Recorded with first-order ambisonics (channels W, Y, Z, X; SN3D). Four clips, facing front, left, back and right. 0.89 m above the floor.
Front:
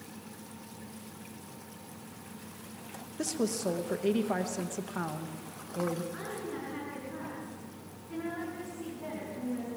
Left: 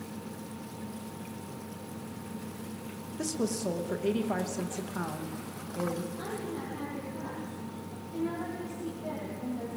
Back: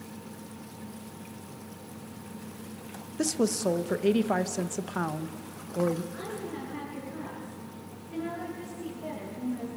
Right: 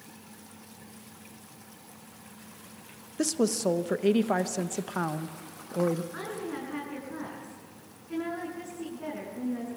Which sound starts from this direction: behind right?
A woman speaking, at 3.2 s.